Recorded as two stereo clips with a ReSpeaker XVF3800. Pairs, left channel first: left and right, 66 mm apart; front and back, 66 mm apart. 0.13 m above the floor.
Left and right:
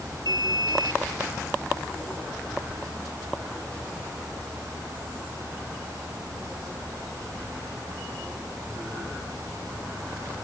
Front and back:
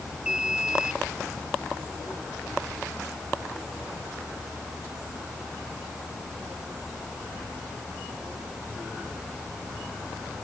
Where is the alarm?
100° left.